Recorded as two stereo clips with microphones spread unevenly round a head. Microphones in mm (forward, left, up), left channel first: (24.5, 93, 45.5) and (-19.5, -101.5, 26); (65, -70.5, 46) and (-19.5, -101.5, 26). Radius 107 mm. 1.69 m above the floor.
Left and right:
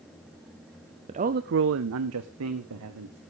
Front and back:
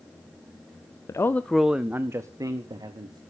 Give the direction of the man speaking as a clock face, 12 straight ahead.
1 o'clock.